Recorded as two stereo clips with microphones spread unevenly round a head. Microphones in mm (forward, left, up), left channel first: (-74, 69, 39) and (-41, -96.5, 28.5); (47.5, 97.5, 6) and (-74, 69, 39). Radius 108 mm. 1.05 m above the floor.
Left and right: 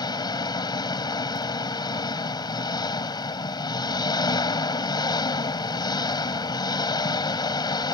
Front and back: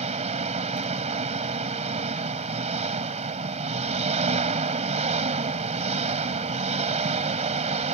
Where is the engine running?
165° left.